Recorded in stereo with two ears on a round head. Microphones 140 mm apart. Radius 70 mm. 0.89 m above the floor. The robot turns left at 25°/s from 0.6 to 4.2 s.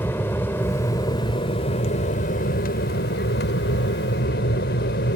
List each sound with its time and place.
0.0 s an aircraft: 165° left; by 5.2 s 75° left